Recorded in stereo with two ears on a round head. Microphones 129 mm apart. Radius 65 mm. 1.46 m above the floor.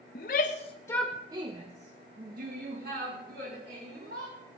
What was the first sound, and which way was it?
A shout, 70° left (ahead or behind).